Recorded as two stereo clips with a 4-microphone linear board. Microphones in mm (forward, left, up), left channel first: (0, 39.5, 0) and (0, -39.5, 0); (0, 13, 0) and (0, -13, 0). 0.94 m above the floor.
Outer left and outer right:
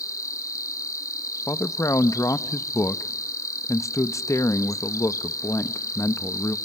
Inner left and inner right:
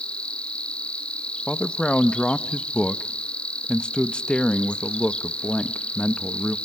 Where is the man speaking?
40° left (ahead or behind), 0.9 m.